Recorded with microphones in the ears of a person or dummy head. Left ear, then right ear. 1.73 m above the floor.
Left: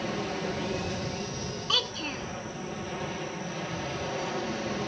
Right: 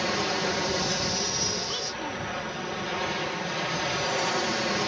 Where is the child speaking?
45° left (ahead or behind).